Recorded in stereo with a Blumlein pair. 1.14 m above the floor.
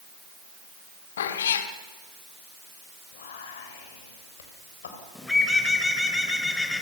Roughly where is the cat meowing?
Ahead left.